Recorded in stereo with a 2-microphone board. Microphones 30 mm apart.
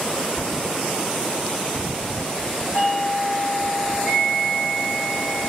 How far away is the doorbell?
About 5.5 m.